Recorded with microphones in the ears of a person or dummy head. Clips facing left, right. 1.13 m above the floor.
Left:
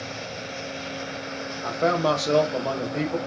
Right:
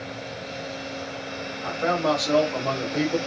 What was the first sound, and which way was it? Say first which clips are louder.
A man speaking: left 1 dB; 50° left (ahead or behind).